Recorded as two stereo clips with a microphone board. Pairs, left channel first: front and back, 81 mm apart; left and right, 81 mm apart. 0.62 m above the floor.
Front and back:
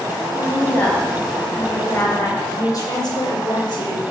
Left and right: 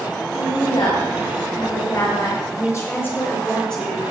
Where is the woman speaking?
75° left, 6 m; by 4.0 s straight ahead, 3 m.